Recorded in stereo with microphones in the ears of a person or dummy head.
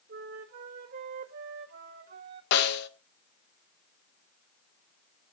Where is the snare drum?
55° left (ahead or behind), 1.3 m.